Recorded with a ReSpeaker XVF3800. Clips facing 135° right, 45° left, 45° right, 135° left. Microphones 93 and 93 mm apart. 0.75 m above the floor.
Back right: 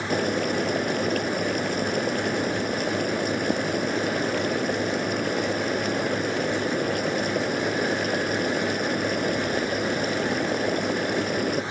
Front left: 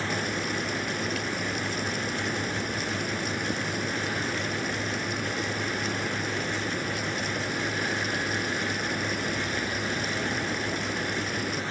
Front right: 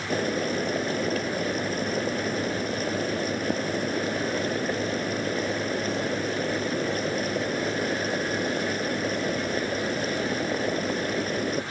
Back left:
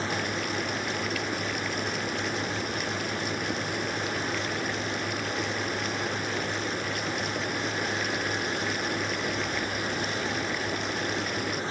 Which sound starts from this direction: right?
Boiling, at 0.1 s.